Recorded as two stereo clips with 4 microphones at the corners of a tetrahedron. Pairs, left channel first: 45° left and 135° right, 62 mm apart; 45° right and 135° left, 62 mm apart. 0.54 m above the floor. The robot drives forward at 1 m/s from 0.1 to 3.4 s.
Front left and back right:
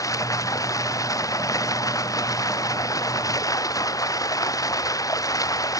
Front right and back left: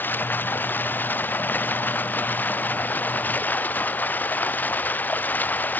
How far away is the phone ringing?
I don't hear a phone ringing.